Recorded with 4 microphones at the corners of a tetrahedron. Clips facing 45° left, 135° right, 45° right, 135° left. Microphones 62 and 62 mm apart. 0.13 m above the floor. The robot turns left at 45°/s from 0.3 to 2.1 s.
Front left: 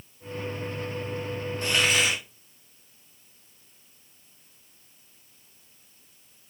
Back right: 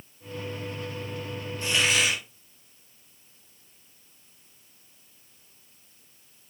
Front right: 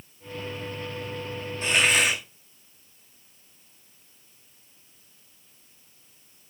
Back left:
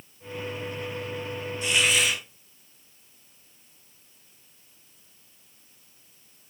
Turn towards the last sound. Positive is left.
turn(degrees=-10)